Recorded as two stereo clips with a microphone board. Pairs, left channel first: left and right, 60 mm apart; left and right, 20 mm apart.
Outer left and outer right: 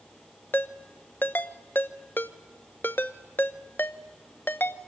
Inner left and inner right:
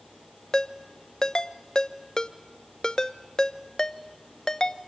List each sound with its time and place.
0.5 s a ringtone: 35° left (ahead or behind), 0.8 m